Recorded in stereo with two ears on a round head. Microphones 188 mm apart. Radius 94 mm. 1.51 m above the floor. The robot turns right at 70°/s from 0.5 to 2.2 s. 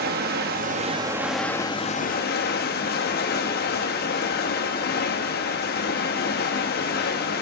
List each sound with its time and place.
0.0 s running water: 60° right, 1.3 m; by 7.4 s 60° left, 1.3 m